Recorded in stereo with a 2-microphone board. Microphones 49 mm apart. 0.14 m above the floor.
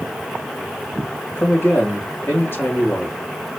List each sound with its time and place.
1.4 s a man speaking: 55° left (ahead or behind), 3 m